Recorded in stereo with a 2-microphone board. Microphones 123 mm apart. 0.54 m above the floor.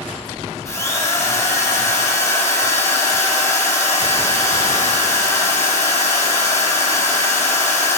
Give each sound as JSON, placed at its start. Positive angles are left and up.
{"t": 0.7, "sound": "a drill", "side_deg": 25, "distance_m": 3.0}